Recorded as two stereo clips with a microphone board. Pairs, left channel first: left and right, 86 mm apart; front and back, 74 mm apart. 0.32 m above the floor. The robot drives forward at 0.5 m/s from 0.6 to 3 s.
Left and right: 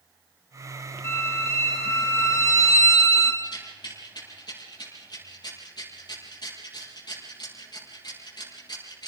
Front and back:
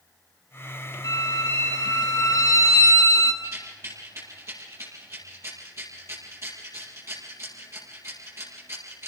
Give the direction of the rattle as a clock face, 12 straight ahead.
8 o'clock.